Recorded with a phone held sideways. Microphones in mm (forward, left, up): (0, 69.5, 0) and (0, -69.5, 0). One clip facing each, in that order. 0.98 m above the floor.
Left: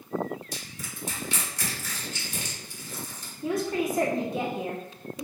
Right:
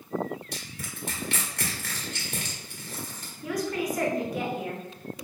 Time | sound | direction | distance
0.5 | crushing | 60° right (ahead or behind) | 1.5 m
3.4 | a woman speaking | 25° left (ahead or behind) | 0.8 m